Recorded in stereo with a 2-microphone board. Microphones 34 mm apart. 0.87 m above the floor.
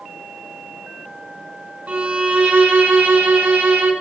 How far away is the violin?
About 3.5 m.